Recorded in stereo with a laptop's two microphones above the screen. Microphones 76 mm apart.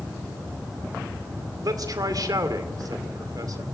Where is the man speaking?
55° right (ahead or behind), 2.5 m.